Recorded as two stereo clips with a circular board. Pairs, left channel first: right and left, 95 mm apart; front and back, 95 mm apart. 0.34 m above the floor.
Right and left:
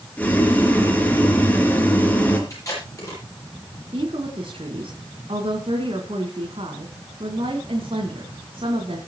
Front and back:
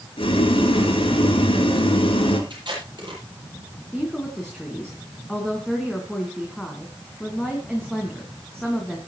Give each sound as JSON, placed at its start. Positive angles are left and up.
{"t": 0.2, "sound": "boiling", "azimuth_deg": -15, "distance_m": 3.0}
{"t": 2.5, "sound": "tape being pulled", "azimuth_deg": -145, "distance_m": 9.0}
{"t": 3.9, "sound": "a woman speaking", "azimuth_deg": 85, "distance_m": 3.0}